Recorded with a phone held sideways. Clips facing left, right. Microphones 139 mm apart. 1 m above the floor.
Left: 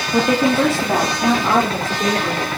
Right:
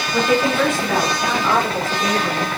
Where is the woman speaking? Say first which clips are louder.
Left 2 dB; 40° left (ahead or behind), 2 m; by 2.5 s 30° left (ahead or behind), 4.5 m.